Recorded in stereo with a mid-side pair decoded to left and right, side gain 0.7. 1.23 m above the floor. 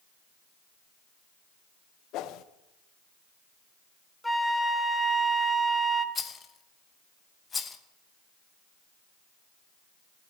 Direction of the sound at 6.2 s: 25° left.